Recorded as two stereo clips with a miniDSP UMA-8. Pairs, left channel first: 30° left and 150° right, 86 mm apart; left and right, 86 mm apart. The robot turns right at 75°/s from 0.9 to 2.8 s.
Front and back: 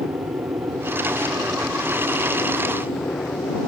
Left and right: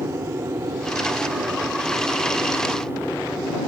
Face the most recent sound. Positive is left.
turn(degrees=25)